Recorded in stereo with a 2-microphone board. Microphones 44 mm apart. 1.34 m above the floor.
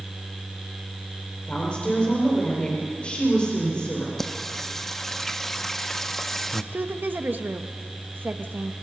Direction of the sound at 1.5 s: 25° left (ahead or behind).